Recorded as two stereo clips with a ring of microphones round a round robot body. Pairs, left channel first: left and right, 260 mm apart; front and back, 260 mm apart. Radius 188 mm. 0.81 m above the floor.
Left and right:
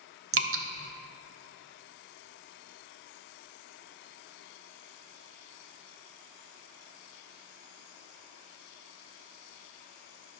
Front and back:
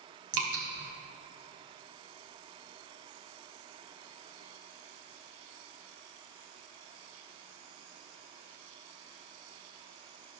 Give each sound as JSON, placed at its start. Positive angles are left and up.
{"t": 0.3, "sound": "dripping", "azimuth_deg": -130, "distance_m": 1.0}